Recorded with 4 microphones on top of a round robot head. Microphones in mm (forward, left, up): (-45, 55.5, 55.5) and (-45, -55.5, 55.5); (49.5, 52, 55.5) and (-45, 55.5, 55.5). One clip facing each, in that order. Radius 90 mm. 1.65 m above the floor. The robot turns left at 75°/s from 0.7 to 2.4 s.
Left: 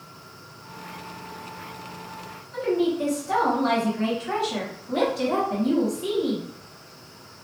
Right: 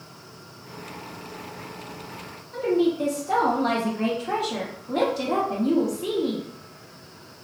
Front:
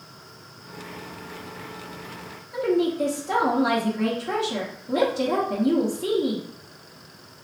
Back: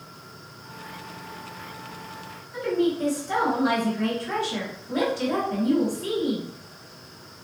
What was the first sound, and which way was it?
A woman speaking, 30° right.